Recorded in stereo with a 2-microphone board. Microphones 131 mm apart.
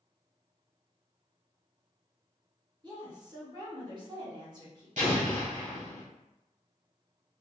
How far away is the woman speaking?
About 1.2 m.